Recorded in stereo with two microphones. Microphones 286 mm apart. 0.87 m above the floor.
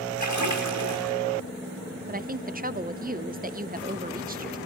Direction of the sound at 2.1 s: 30° right (ahead or behind).